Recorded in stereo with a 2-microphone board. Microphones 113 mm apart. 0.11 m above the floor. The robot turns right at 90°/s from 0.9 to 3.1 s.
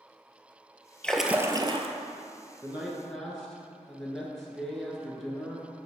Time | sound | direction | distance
1.0 | a splash | 170° left | 0.5 m
2.6 | a man speaking | 35° right | 1.2 m